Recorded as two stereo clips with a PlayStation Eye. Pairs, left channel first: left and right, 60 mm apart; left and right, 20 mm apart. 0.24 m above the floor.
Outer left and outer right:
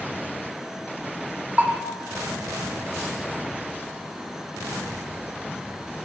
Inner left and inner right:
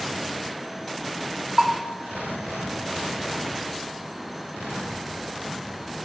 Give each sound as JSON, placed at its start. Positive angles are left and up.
{"t": 1.6, "sound": "a bell", "side_deg": -25, "distance_m": 0.7}